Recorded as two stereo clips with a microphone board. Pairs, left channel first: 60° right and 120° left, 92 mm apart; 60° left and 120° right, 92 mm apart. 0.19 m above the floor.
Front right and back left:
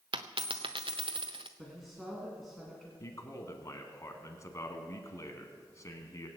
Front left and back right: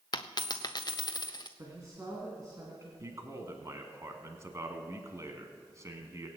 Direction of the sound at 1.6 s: 150° right.